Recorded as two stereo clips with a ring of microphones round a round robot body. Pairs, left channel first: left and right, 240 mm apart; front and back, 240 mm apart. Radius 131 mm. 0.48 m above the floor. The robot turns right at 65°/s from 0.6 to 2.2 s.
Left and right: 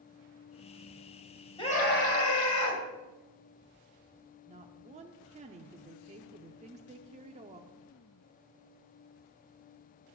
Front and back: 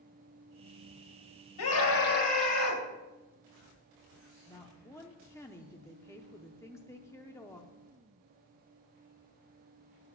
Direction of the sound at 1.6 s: 15° left.